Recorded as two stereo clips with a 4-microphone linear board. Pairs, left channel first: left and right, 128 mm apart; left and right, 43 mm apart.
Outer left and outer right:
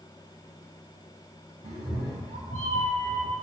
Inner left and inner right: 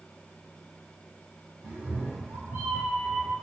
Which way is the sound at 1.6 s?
75° right (ahead or behind).